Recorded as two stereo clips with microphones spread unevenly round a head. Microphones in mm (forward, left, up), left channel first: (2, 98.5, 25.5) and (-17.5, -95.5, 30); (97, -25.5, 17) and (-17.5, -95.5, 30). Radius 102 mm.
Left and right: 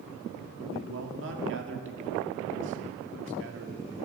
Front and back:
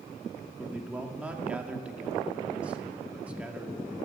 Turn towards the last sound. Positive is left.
turn(degrees=-70)